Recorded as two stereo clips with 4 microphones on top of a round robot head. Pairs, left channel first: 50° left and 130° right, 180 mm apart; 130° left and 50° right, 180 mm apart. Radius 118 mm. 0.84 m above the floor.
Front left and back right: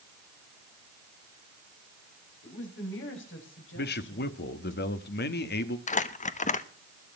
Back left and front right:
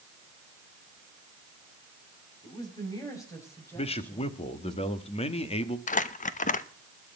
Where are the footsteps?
I don't hear footsteps.